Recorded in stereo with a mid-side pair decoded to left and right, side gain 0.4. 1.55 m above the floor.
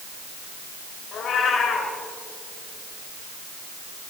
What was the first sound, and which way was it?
A cat meowing, 65° left.